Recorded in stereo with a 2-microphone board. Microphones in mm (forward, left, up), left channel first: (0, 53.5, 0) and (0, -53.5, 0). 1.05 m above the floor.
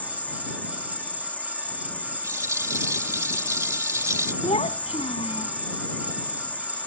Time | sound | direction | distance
0.0 | an insect | 15° left (ahead or behind) | ?
2.2 | a rattle | 30° right (ahead or behind) | ?
4.4 | a child speaking | 85° left | ?